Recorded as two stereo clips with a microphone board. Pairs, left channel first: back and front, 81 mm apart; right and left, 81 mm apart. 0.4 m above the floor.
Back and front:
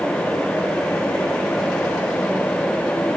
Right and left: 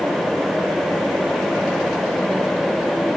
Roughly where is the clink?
I don't hear a clink.